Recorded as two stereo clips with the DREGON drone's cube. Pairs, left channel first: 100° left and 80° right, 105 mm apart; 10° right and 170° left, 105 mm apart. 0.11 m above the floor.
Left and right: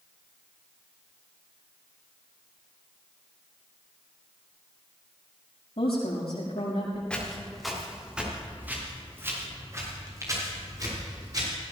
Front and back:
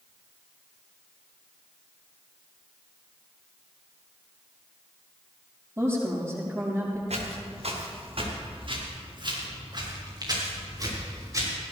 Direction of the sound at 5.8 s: 105° left.